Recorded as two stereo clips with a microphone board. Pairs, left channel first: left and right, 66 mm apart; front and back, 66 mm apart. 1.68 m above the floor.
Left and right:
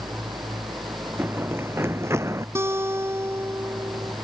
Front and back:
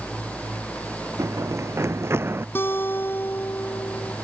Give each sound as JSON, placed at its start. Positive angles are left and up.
{"t": 0.0, "sound": "an engine running", "azimuth_deg": -80}
{"t": 1.2, "sound": "running footsteps", "azimuth_deg": -145}
{"t": 2.5, "sound": "a guitar", "azimuth_deg": -50}